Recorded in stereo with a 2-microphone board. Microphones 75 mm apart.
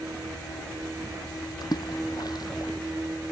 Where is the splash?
55° left (ahead or behind).